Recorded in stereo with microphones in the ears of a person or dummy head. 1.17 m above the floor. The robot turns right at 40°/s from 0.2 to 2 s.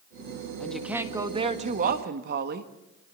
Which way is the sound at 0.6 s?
175° left.